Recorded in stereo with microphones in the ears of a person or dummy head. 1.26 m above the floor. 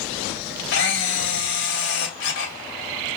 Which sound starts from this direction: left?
A camera shutter, at 0.7 s.